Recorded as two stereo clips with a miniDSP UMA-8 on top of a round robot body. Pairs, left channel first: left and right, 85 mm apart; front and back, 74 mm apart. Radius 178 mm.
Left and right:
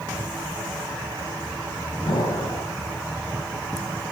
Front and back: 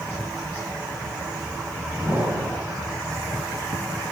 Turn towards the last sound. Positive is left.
turn(degrees=115)